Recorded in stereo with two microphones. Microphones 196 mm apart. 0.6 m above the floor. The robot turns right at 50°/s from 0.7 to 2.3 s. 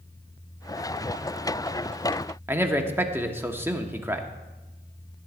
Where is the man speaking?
10° right (ahead or behind), 1.0 m.